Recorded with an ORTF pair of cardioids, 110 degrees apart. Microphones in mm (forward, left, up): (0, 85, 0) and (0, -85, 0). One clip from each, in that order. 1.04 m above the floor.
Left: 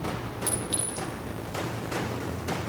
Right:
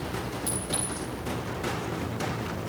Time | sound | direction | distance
0.5 | a clink | 20° left | 9 m